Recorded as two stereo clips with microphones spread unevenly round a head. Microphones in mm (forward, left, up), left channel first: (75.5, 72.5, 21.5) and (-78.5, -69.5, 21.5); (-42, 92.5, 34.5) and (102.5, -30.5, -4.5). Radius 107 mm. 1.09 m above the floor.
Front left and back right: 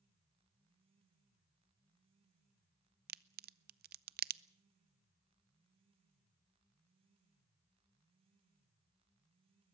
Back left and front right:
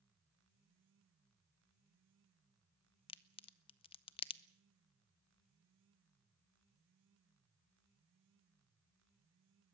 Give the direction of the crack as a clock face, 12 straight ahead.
5 o'clock.